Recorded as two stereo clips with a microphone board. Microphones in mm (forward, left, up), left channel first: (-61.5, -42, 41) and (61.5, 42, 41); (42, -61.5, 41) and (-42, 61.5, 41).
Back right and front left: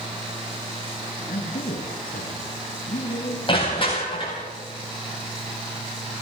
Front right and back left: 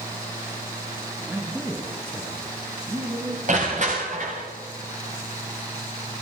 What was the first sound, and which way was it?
A man speaking, 160° right.